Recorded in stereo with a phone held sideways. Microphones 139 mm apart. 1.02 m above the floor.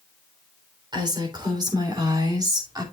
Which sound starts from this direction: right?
A woman speaking, at 0.9 s.